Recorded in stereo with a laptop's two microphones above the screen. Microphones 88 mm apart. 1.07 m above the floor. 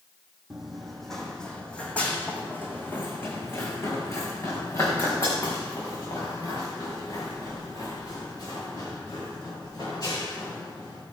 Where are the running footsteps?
5° right (ahead or behind), 1.8 m; by 11.0 s 50° left (ahead or behind), 6.5 m.